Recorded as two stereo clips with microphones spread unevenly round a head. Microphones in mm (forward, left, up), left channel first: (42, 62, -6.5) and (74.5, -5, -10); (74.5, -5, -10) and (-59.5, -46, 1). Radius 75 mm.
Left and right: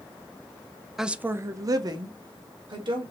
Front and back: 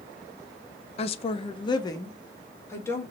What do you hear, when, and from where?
1.0 s a woman speaking: 20° left, 0.5 m; by 3.1 s 55° right, 1.6 m